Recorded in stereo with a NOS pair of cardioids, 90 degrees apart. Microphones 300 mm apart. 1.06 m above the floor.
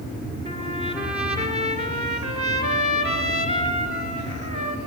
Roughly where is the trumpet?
Ahead.